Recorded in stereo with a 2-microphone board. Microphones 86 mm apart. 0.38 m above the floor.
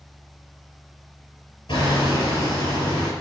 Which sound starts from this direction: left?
Hammering, at 1.7 s.